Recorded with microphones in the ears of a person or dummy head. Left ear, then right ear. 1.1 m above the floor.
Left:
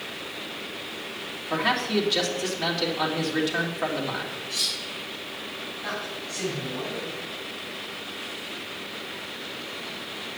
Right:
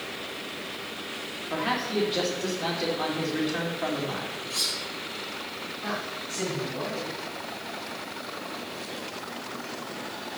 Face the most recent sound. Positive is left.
turn(degrees=5)  # may be behind; listen again after turning